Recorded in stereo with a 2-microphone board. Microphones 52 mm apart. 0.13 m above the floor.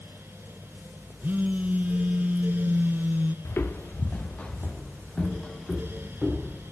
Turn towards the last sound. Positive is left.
turn(degrees=5)  # may be behind; listen again after turning